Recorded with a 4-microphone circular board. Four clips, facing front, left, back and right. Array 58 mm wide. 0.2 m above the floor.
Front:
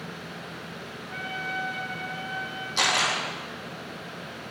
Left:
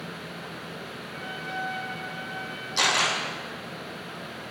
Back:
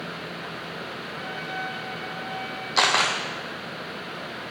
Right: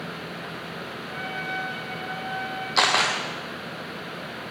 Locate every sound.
1.1 s a trumpet: 45° right, 7 m
2.8 s a camera shutter: 130° right, 3.5 m